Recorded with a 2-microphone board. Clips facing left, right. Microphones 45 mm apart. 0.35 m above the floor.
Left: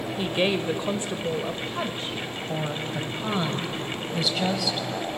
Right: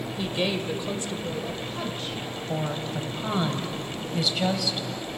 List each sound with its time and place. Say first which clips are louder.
0.2 s a woman speaking: left 3 dB; 25° left (ahead or behind), 1.2 m
2.5 s a woman speaking: right 1 dB; centre (ahead or behind), 2 m